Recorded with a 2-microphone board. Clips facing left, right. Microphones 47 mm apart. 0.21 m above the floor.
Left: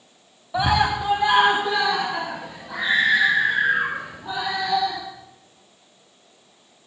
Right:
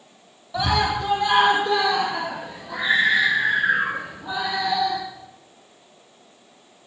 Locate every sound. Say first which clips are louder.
0.5 s a scream: left 2 dB; 20° left (ahead or behind), 1.0 m; by 5.0 s centre (ahead or behind), 6 m